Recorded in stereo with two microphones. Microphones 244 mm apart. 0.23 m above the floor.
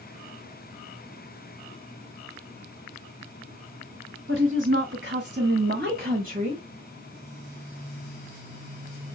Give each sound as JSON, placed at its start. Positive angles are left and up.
{"t": 4.3, "sound": "a woman speaking", "side_deg": -50, "distance_m": 2.5}